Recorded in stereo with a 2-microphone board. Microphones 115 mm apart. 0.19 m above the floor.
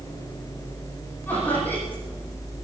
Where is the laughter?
15° left (ahead or behind), 8.5 m.